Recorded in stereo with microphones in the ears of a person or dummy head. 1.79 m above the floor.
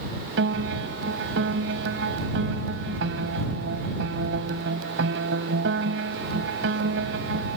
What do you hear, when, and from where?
0.4 s a piano: 75° right (ahead or behind)